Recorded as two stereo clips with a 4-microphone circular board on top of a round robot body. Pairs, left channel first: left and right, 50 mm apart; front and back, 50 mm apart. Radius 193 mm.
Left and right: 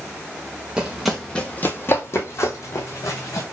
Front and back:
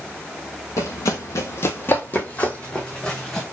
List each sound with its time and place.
0.8 s running footsteps: 20° right, 0.7 m; by 3.4 s 80° left, 1.6 m